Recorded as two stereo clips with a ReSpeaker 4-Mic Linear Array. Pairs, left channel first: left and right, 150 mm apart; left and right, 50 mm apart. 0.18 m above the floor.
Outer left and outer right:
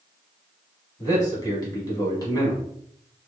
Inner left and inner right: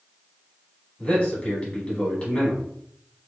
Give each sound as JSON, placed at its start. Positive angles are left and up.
{"t": 1.0, "sound": "a man speaking", "side_deg": 25, "distance_m": 1.3}